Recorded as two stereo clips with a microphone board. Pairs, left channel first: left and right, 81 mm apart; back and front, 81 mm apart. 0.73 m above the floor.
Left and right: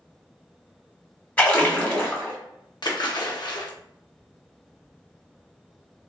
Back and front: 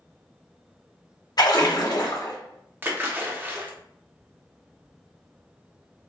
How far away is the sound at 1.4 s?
About 0.9 m.